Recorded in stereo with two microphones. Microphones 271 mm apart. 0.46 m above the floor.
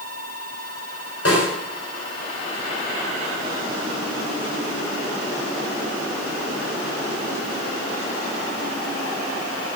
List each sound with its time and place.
1.2 s a snare drum: 60° left (ahead or behind), 4.5 m